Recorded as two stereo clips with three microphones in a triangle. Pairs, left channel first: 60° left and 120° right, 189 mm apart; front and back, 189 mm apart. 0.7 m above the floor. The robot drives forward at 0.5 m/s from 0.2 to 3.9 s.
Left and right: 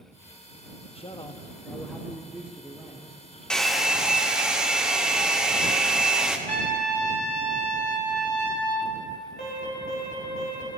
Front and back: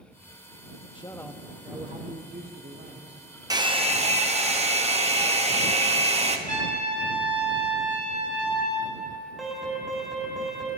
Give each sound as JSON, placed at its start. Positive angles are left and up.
{"t": 0.9, "sound": "a man speaking", "azimuth_deg": 40, "distance_m": 0.5}
{"t": 3.5, "sound": "a hair dryer", "azimuth_deg": 140, "distance_m": 0.6}
{"t": 6.5, "sound": "a trumpet", "azimuth_deg": 140, "distance_m": 4.5}
{"t": 9.4, "sound": "an alarm", "azimuth_deg": 90, "distance_m": 3.5}